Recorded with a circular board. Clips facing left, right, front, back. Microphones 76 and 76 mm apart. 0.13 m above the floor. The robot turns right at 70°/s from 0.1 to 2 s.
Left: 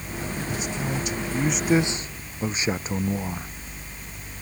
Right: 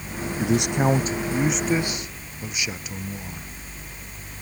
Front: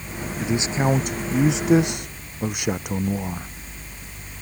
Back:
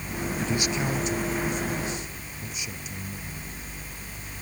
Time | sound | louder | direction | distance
0.4 | a man speaking | right 11 dB, front 6 dB | 80° right | ?